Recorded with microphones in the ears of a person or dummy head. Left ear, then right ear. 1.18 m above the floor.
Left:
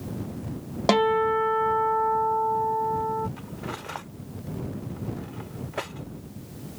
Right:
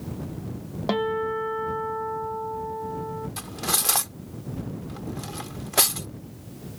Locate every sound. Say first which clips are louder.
0.9 s a guitar: left 5 dB; 65° left (ahead or behind)
3.4 s cutlery clinking: right 8 dB; 80° right